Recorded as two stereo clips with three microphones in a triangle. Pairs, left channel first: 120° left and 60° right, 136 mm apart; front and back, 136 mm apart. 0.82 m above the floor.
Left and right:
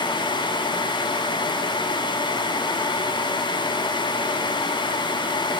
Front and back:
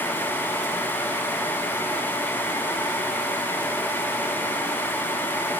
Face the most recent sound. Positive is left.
No sound to turn to.